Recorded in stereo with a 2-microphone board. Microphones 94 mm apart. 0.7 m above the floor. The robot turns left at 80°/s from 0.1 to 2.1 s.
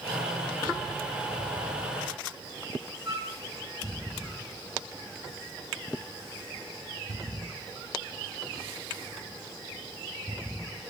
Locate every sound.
3.0 s a flute: 85° right, 5 m